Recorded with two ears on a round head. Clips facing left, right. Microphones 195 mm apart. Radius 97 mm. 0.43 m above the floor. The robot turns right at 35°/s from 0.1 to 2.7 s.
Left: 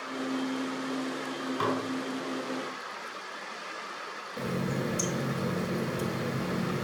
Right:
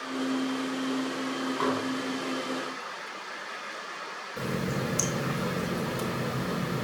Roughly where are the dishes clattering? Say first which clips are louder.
Right 1 dB; left.